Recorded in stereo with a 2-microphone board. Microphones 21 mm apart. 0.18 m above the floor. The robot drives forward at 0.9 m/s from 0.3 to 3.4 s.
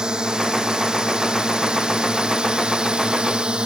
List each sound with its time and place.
0.0 s a drone: 40° right (ahead or behind); by 3.7 s 50° right (ahead or behind)